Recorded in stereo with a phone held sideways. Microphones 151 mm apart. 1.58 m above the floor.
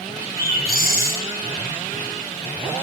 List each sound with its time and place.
0.4 s a bird: 70° left (ahead or behind), 1.0 m